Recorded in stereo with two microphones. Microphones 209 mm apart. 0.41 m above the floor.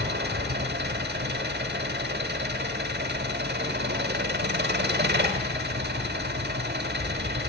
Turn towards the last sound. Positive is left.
turn(degrees=-55)  # may be behind; listen again after turning